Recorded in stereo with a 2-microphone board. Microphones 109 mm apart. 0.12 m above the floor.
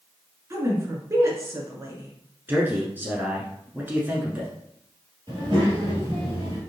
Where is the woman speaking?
30° right (ahead or behind), 1.2 m.